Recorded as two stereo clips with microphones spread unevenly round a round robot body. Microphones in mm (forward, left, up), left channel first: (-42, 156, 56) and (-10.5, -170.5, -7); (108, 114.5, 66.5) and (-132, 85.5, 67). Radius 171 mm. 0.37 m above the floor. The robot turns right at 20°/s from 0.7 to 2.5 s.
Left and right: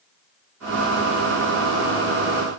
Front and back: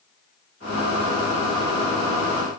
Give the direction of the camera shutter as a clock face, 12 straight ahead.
I don't hear a camera shutter.